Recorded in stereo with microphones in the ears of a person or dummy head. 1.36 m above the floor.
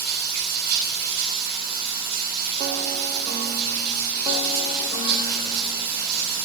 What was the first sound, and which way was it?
Running water, 55° right (ahead or behind).